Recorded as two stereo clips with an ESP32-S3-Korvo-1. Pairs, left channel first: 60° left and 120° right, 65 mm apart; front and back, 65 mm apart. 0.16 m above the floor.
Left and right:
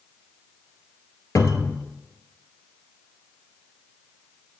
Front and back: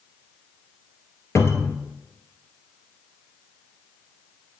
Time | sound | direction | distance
1.4 | a cupboard door | 35° left | 0.9 m